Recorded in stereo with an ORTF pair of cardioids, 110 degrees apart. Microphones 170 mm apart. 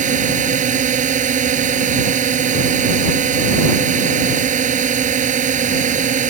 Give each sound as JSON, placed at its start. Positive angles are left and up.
{"t": 0.0, "sound": "a drone", "azimuth_deg": -45}